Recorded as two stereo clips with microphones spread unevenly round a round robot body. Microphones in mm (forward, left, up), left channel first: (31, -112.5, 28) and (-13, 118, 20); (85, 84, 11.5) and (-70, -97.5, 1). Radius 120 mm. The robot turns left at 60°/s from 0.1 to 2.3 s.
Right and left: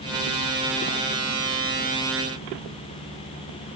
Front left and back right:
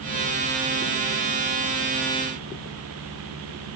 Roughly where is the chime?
I don't hear a chime.